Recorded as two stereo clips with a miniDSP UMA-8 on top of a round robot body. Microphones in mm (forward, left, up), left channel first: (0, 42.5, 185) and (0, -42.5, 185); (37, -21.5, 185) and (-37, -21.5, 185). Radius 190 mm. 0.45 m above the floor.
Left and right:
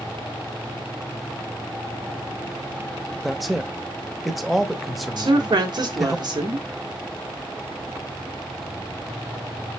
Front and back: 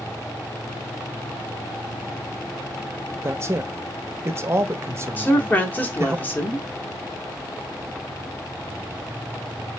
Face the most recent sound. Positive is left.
turn(degrees=-65)